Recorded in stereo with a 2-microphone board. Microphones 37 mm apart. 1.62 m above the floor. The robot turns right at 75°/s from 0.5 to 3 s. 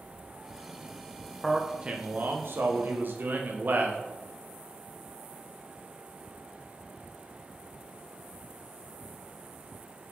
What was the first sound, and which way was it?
A man speaking, straight behind.